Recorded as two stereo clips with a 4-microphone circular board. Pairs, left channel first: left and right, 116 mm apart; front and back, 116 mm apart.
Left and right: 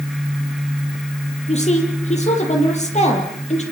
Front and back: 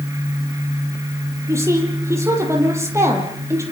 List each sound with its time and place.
1.5 s a woman speaking: 115° left, 7 m